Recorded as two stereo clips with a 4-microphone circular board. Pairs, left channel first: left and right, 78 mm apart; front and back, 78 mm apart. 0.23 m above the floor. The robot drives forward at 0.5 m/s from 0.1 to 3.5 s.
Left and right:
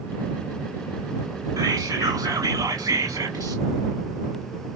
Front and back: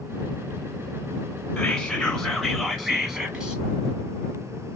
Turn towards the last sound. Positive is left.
turn(degrees=-110)